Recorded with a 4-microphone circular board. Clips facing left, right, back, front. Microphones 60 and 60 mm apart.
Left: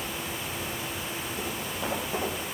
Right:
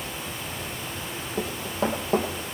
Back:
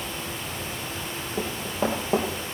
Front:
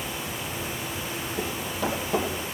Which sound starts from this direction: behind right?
Running footsteps, at 1.4 s.